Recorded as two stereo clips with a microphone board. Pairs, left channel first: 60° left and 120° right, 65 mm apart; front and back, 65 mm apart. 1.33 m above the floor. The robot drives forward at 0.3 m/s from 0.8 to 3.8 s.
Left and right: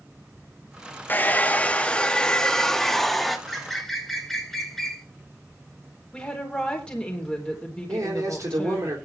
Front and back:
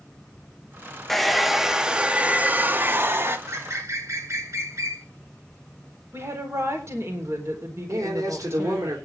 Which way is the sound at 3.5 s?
145° left.